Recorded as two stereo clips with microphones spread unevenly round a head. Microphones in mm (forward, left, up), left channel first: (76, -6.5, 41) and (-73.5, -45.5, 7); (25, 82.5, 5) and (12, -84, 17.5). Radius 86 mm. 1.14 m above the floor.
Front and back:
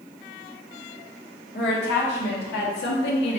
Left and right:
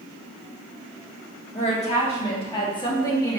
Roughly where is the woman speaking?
Ahead left.